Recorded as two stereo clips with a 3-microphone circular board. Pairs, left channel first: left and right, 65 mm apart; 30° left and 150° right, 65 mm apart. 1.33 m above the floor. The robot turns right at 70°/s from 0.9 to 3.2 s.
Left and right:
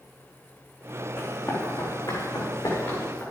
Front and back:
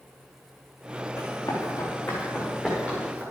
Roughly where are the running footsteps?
Ahead left.